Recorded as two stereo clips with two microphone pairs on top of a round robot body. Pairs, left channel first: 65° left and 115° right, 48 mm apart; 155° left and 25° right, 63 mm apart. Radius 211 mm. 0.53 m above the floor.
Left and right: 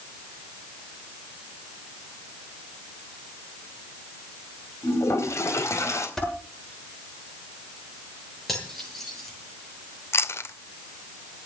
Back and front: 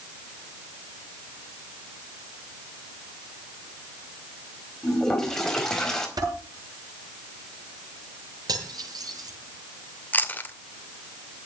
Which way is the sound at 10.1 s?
90° left.